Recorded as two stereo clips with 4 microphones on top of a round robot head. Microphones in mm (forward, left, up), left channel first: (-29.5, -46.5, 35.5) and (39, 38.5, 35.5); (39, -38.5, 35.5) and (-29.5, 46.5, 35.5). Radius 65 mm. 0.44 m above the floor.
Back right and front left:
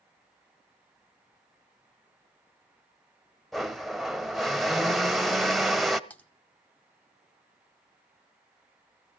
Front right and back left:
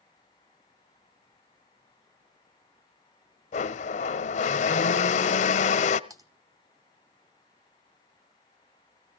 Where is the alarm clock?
I don't hear an alarm clock.